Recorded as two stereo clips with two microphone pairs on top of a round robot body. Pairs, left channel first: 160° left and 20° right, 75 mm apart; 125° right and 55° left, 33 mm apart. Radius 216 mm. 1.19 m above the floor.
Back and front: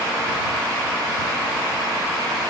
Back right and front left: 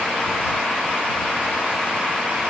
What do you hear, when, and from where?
Only background noise.